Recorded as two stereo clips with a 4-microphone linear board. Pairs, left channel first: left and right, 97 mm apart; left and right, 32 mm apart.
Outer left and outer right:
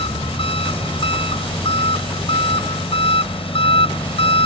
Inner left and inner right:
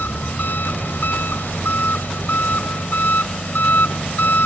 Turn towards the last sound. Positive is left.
turn(degrees=80)